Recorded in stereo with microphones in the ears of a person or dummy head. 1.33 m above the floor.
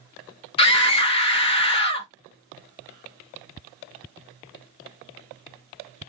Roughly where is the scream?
Left.